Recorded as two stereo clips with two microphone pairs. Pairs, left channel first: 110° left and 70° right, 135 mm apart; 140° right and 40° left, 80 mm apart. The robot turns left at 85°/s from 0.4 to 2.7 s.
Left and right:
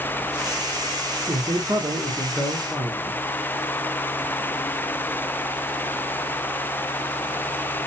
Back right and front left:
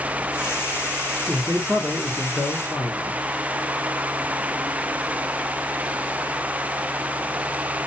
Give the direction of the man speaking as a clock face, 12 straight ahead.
2 o'clock.